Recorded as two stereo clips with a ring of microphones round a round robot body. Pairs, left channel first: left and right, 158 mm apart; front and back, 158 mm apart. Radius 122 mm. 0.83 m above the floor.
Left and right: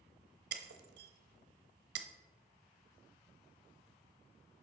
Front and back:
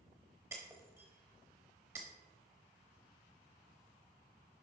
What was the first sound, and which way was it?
Breaking glass, 100° right.